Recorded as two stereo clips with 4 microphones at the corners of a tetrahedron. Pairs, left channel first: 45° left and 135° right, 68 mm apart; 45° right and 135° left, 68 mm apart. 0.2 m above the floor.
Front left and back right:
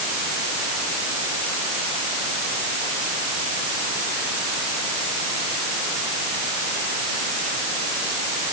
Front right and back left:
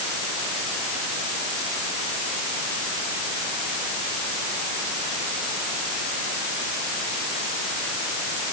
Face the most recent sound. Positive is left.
No sound to turn to.